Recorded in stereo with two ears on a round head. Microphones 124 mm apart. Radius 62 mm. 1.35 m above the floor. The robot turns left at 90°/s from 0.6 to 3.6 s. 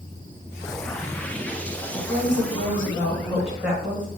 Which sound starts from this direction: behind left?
A woman speaking, at 1.9 s.